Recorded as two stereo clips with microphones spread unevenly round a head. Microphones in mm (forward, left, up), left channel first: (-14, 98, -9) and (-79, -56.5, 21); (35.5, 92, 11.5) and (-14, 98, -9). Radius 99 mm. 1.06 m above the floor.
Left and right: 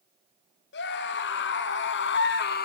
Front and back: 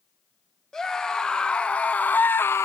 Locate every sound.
0.7 s a scream: 75° left, 2 m; by 2.7 s 35° left, 0.8 m